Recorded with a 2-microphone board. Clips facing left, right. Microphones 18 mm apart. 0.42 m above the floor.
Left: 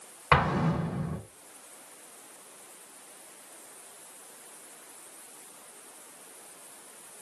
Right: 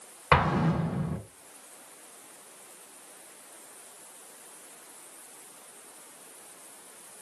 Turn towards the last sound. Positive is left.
turn(degrees=-15)  # may be behind; listen again after turning